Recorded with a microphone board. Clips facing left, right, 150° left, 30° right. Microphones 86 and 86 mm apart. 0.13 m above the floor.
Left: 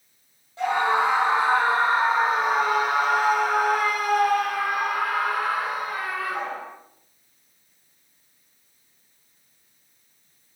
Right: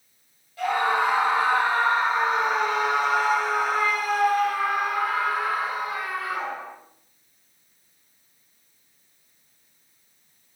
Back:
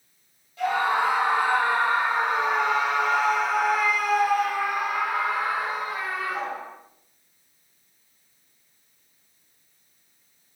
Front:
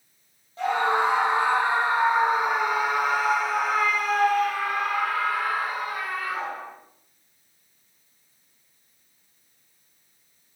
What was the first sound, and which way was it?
A scream, 25° left.